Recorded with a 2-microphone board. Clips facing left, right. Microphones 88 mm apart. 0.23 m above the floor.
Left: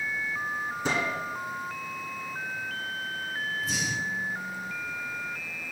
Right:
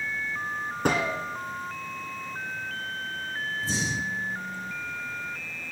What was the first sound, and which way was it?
A gunshot, 65° right (ahead or behind).